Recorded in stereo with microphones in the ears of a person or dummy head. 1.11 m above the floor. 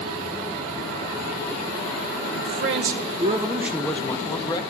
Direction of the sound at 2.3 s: 60° right (ahead or behind).